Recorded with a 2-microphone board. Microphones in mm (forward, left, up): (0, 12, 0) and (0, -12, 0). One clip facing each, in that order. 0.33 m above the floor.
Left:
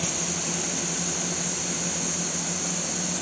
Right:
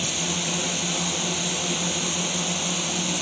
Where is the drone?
50° right (ahead or behind).